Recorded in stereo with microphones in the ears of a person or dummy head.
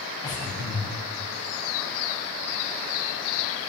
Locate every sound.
0.2 s breathing: 20° left (ahead or behind), 8 m